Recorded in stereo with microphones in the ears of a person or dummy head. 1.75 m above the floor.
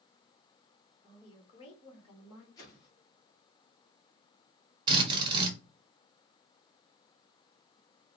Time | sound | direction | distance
1.0 | a woman speaking | 25° left (ahead or behind) | 1.2 m
2.6 | a whoosh | 20° left (ahead or behind) | 1.4 m
4.9 | a drill | 25° right (ahead or behind) | 1.1 m